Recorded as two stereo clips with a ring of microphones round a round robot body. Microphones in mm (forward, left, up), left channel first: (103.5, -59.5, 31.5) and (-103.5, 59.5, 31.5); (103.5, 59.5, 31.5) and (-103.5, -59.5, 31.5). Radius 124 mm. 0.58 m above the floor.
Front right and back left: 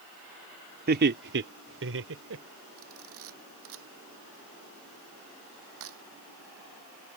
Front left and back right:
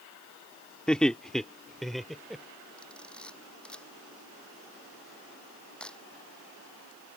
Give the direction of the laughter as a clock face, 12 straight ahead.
8 o'clock.